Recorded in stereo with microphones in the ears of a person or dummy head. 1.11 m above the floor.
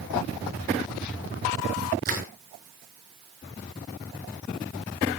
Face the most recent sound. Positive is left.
turn(degrees=-50)  # may be behind; listen again after turning